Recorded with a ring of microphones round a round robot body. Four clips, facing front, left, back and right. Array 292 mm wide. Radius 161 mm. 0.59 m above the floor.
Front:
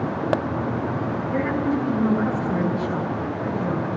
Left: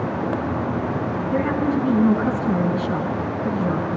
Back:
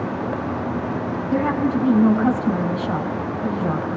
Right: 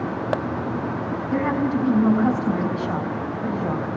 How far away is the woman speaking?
About 7 m.